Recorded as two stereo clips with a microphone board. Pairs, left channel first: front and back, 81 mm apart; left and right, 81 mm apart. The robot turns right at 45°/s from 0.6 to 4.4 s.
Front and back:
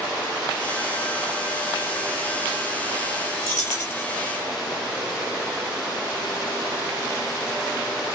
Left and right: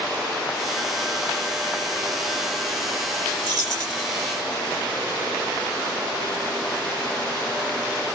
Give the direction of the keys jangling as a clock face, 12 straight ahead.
2 o'clock.